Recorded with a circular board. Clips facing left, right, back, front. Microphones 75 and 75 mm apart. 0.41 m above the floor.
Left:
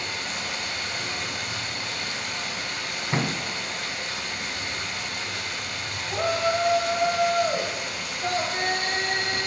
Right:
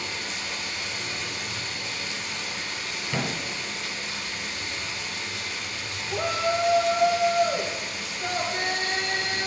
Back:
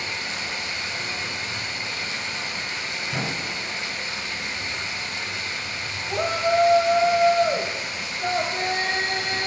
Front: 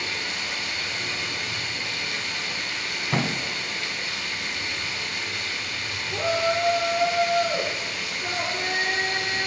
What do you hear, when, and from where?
0.0 s running water: 115° left, 2 m
3.1 s a thud: 35° left, 1.4 m
6.1 s a shout: 170° left, 1.9 m